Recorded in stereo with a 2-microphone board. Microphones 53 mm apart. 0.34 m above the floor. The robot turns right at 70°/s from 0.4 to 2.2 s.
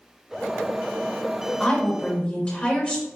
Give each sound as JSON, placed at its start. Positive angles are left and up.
{"t": 1.6, "sound": "a woman speaking", "side_deg": 10, "distance_m": 1.4}